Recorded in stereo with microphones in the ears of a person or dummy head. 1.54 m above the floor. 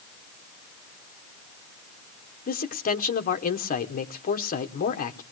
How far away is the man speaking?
About 1.3 m.